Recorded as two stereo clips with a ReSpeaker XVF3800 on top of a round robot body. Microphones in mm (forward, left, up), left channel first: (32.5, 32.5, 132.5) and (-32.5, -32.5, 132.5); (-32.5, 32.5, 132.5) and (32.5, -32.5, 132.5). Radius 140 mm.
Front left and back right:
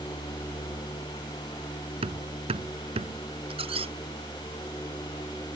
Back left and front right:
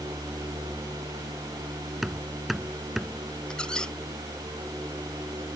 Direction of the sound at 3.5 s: 145° right.